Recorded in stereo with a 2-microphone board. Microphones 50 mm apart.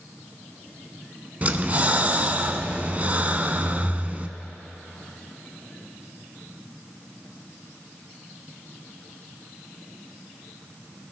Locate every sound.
1.4 s breathing: 30° right (ahead or behind), 0.6 m